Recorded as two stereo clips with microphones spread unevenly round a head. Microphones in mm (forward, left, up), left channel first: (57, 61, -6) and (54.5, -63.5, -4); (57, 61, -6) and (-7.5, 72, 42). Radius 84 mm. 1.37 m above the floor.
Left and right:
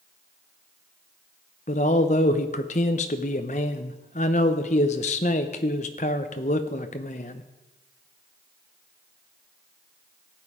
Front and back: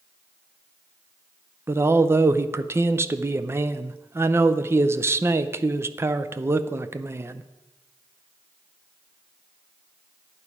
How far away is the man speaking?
About 0.7 m.